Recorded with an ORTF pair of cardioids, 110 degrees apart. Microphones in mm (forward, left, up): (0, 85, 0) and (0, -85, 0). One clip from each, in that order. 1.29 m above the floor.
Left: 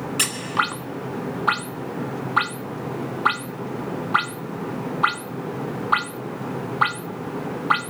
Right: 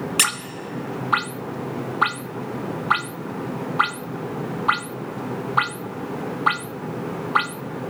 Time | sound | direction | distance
0.2 | a squeak | 45° right | 0.6 m